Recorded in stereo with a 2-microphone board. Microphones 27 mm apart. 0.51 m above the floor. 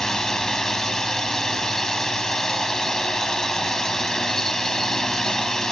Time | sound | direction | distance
0.0 | a drone | 20° left (ahead or behind) | ?